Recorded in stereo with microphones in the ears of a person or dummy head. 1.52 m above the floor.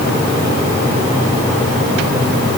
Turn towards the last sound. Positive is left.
No sound to turn to.